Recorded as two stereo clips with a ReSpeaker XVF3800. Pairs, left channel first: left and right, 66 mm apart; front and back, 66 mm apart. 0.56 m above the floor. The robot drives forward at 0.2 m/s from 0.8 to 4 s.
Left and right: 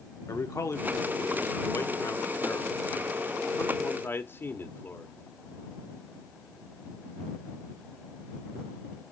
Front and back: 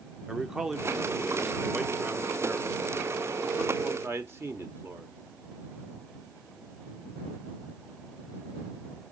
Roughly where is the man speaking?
Left.